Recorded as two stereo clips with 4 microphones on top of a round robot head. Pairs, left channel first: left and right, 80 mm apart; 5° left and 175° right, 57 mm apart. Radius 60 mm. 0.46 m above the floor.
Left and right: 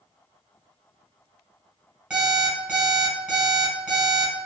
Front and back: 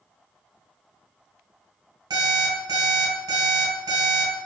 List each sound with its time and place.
2.1 s an alarm clock: 170° right, 1.3 m